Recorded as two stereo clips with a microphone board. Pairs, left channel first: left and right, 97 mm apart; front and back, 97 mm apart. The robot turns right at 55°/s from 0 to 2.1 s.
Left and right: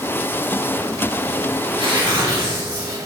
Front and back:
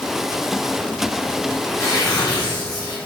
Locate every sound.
1.6 s tearing paper: 70° right, 3 m; by 3.0 s 45° right, 3 m